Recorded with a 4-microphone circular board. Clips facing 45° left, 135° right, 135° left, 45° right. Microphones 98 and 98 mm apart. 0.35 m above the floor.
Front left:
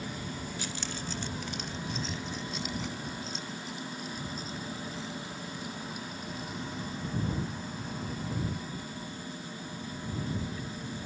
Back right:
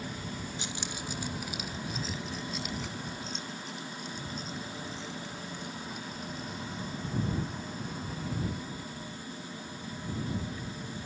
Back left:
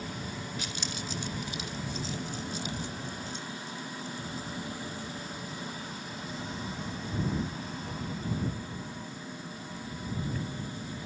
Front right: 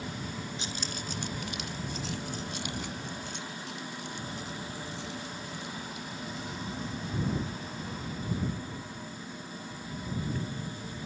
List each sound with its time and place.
0.6 s keys jangling: 85° right; by 6.6 s 40° right